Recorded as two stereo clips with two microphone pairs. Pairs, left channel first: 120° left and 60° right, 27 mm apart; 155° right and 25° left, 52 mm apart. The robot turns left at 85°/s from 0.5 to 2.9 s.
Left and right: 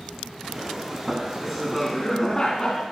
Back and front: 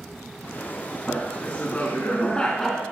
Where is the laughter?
100° right, 1.1 m; by 2.8 s 110° left, 1.1 m.